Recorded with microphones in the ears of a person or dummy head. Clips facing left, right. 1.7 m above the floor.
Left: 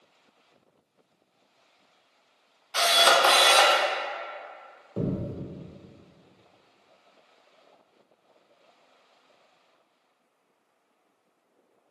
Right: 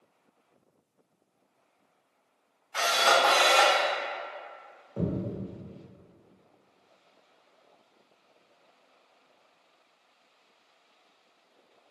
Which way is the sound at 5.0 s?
35° left (ahead or behind).